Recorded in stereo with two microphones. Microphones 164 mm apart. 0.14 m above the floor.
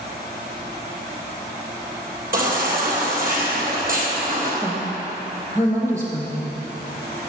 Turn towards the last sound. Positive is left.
turn(degrees=-15)  # may be behind; listen again after turning